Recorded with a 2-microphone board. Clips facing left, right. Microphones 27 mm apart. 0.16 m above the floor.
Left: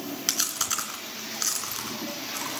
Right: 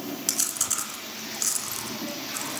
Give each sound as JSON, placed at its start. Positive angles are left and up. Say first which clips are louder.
{"t": 0.3, "sound": "chewing", "louder": "left 3 dB", "side_deg": 25, "distance_m": 2.5}